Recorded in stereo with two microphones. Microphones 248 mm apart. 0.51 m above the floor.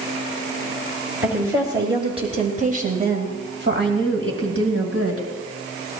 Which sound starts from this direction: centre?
A woman speaking, at 1.2 s.